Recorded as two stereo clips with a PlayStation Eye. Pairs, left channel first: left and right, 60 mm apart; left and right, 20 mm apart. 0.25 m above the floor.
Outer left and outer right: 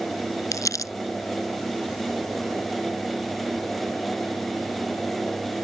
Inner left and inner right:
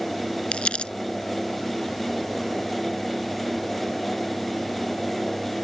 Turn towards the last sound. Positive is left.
turn(degrees=70)  # may be behind; listen again after turning